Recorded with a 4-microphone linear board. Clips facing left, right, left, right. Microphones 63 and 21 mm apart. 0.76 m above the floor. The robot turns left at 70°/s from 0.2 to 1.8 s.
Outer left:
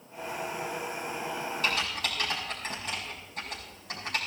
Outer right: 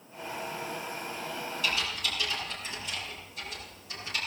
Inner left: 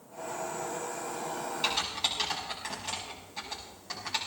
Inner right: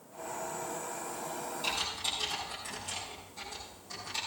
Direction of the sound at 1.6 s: 50° left (ahead or behind).